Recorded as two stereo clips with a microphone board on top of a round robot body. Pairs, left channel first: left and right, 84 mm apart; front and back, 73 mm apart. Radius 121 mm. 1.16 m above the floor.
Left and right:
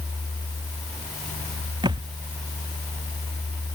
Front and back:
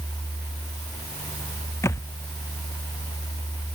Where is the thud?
55° right.